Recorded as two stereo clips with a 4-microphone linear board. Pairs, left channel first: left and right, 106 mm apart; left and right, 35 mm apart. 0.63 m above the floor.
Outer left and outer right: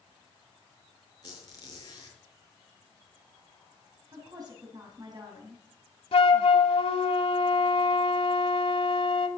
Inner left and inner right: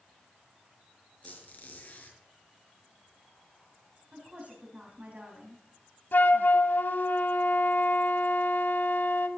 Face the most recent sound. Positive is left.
turn(degrees=65)  # may be behind; listen again after turning